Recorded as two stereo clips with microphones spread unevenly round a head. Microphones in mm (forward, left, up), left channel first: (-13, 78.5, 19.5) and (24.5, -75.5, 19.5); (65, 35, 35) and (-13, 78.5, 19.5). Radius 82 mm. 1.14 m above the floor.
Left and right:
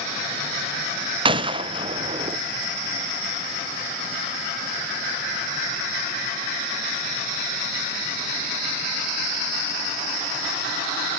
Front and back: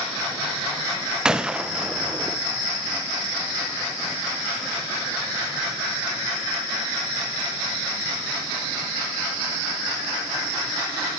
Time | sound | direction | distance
1.2 | a gunshot | 135° right | 0.6 m